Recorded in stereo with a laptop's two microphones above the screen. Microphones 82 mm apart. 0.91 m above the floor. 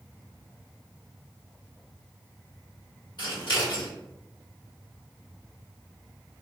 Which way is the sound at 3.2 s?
65° left (ahead or behind).